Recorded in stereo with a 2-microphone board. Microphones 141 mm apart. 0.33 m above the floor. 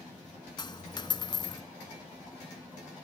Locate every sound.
0.6 s a dropped coin: 30° left (ahead or behind), 0.9 m